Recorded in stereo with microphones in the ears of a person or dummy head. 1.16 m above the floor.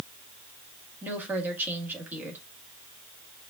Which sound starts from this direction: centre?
A woman speaking, at 1.0 s.